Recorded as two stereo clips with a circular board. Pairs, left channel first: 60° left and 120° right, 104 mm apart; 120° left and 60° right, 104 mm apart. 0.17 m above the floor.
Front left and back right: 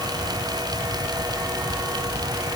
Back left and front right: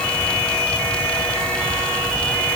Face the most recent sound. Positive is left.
No sound to turn to.